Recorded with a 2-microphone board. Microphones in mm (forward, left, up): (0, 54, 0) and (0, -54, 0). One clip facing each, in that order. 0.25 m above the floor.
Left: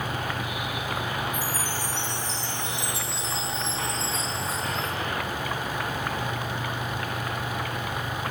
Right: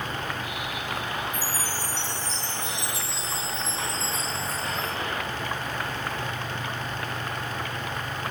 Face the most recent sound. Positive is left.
turn(degrees=30)  # may be behind; listen again after turning